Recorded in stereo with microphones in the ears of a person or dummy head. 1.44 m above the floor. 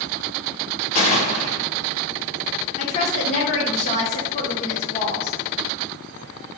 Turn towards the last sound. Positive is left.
turn(degrees=40)  # may be behind; listen again after turning